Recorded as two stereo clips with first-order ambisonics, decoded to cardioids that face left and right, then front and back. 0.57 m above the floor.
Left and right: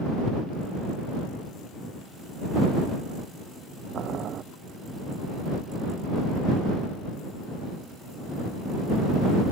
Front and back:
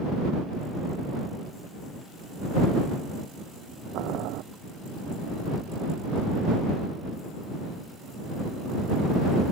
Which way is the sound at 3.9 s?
145° right.